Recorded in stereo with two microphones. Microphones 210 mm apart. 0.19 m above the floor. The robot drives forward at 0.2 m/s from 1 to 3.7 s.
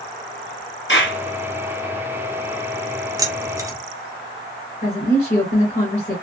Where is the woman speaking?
35° left (ahead or behind), 2 m.